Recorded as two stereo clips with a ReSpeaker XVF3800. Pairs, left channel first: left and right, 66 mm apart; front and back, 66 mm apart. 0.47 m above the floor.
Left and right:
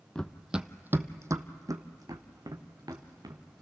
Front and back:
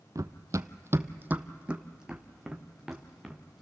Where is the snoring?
No snoring in this recording.